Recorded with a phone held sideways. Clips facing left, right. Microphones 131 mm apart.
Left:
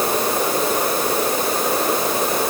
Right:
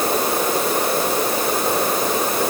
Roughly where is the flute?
I don't hear a flute.